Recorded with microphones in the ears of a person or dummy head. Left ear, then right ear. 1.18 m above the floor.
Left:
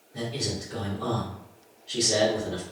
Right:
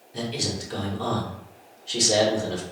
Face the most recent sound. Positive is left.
turn(degrees=-50)  # may be behind; listen again after turning